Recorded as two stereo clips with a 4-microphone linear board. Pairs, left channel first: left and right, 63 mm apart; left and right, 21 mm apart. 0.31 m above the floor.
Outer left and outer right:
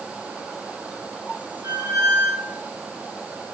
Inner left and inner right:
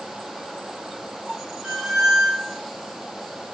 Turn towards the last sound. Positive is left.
turn(degrees=-60)  # may be behind; listen again after turning